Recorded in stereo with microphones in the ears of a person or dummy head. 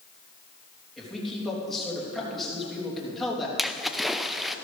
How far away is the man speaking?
About 3.5 m.